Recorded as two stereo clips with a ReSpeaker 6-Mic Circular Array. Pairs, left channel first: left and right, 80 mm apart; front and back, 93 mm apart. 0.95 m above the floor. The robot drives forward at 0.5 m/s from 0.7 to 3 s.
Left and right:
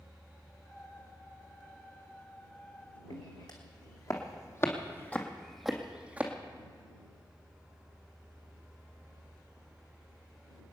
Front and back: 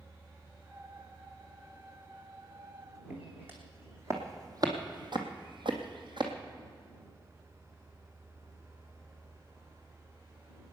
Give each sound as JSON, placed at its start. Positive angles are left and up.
{"t": 3.1, "sound": "footsteps", "azimuth_deg": 110, "distance_m": 3.5}